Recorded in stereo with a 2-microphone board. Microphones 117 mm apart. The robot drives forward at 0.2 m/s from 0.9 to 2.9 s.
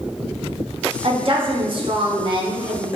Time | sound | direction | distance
1.0 | a woman speaking | 50° right (ahead or behind) | 0.6 m